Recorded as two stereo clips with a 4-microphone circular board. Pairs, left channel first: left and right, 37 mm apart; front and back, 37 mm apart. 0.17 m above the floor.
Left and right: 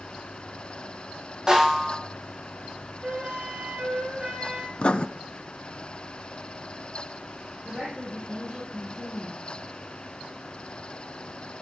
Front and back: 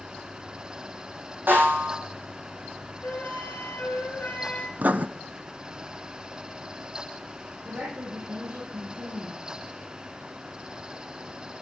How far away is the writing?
About 0.6 m.